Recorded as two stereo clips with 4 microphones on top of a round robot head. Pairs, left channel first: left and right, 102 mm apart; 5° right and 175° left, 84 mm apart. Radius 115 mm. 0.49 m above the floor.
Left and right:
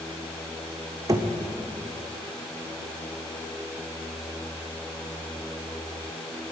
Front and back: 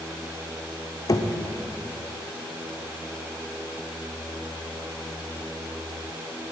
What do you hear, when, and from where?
1.1 s knocking: 40° right, 0.9 m